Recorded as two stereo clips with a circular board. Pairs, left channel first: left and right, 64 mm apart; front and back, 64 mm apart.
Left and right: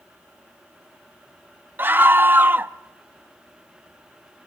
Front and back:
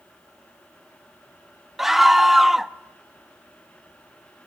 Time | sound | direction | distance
1.8 | a scream | 100° right | 0.6 m